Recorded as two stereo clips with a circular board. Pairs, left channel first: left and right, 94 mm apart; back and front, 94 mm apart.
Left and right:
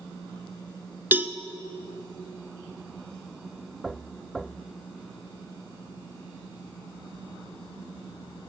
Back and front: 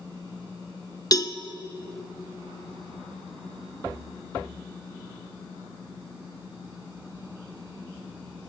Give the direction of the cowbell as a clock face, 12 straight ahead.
5 o'clock.